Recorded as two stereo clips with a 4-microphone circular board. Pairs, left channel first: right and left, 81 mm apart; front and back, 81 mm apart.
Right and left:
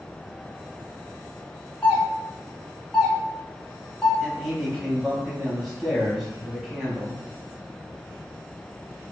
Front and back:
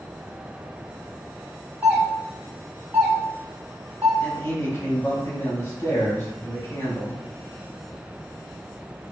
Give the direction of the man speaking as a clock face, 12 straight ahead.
12 o'clock.